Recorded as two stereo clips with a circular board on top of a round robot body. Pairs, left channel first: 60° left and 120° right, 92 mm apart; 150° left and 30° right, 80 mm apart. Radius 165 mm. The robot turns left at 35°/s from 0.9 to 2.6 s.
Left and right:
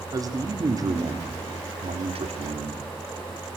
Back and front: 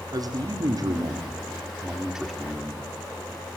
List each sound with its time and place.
0.1 s a man speaking: 70° right, 2.0 m; by 2.9 s 130° right, 2.0 m